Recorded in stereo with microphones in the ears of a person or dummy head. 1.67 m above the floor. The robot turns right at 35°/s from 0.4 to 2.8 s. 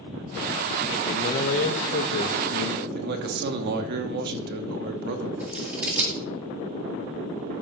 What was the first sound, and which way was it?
A man speaking, 35° left.